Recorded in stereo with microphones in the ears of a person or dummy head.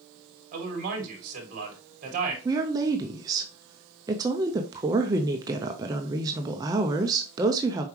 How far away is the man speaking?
About 2.5 m.